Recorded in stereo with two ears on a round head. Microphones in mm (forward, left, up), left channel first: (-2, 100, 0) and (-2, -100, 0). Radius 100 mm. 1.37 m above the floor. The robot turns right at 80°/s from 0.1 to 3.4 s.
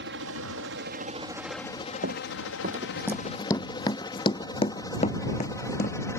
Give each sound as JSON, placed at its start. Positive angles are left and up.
{"t": 0.0, "sound": "a helicopter", "side_deg": -55}
{"t": 2.0, "sound": "running footsteps", "side_deg": -45}